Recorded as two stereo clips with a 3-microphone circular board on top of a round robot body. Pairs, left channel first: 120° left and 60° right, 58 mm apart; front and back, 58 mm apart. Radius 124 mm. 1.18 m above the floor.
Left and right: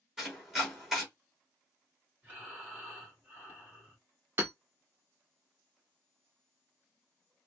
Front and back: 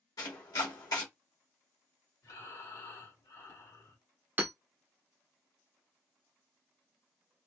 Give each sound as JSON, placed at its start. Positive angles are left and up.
{"t": 0.2, "sound": "chopping", "azimuth_deg": 25, "distance_m": 1.3}
{"t": 2.2, "sound": "breathing", "azimuth_deg": 10, "distance_m": 2.0}
{"t": 4.4, "sound": "hammering", "azimuth_deg": -120, "distance_m": 0.6}